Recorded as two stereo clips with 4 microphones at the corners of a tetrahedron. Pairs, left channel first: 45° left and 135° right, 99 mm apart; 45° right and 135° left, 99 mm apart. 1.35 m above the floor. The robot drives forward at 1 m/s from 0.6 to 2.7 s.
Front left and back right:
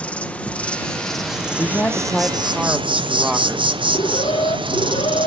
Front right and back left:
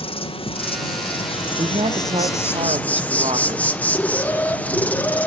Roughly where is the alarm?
Ahead left.